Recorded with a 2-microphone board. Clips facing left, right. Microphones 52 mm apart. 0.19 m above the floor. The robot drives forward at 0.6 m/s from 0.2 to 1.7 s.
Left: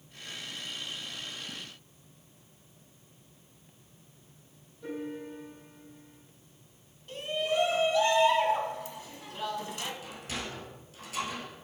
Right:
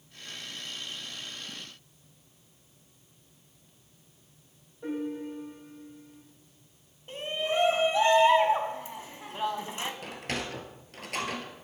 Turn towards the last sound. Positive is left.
turn(degrees=-60)  # may be behind; listen again after turning